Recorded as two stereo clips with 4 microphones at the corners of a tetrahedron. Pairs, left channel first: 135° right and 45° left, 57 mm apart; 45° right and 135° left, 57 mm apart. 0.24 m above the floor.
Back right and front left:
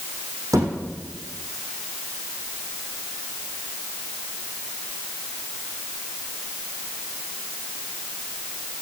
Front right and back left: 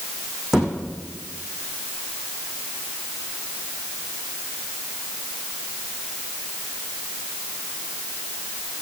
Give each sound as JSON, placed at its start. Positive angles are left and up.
{"t": 0.5, "sound": "a thud", "azimuth_deg": 50, "distance_m": 7.0}